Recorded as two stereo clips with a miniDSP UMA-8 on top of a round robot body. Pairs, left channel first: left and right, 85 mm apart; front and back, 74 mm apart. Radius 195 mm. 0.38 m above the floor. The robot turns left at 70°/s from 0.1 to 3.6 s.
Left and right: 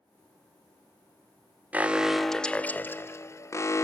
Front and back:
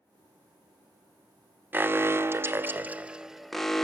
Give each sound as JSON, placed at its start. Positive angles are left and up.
{"t": 1.7, "sound": "an alarm", "azimuth_deg": -145, "distance_m": 0.9}